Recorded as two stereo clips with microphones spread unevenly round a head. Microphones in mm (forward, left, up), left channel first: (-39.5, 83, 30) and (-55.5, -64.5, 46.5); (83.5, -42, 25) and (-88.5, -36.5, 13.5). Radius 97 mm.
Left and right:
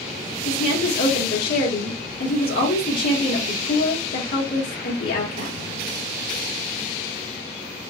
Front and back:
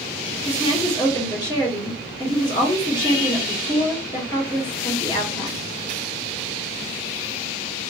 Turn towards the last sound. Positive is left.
turn(degrees=70)